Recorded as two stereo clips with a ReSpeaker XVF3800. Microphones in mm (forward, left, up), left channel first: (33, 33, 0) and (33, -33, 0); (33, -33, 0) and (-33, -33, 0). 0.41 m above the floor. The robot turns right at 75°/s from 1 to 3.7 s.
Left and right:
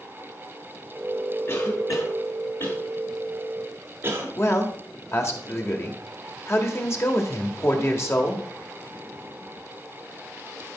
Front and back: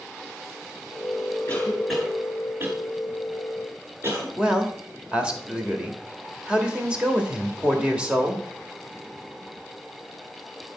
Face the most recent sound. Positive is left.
turn(degrees=115)